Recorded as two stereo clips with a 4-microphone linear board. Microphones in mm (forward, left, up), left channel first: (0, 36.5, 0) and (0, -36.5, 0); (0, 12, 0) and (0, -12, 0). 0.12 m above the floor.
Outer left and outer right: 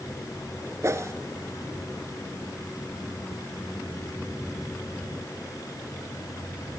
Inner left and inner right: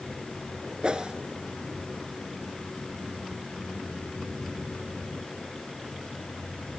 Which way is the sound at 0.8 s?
45° right (ahead or behind).